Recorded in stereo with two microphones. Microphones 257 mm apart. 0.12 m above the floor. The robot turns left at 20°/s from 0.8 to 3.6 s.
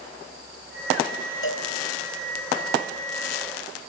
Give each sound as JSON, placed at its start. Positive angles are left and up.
{"t": 1.4, "sound": "a cowbell", "side_deg": 55, "distance_m": 1.6}